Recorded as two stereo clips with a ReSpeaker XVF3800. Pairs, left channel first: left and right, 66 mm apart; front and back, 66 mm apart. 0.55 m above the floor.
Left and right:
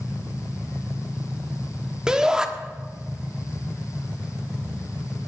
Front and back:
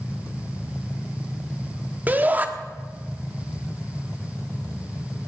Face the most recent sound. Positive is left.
turn(degrees=-155)